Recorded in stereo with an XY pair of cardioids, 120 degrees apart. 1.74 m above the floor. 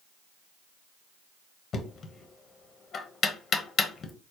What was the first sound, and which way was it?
Knocking, 45° left.